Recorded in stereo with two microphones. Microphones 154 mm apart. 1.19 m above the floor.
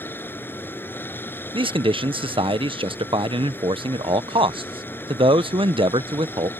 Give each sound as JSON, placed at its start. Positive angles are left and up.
{"t": 0.0, "sound": "running water", "side_deg": 15}
{"t": 1.5, "sound": "a man speaking", "side_deg": -35}